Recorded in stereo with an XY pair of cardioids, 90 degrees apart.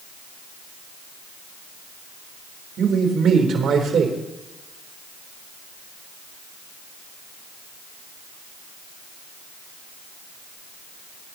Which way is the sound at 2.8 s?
70° right.